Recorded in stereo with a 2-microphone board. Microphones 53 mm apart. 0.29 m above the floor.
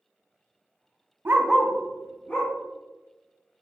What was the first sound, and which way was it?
A dog barking, 45° right (ahead or behind).